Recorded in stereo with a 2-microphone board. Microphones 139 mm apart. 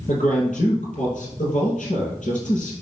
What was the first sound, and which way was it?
A man speaking, 65° left (ahead or behind).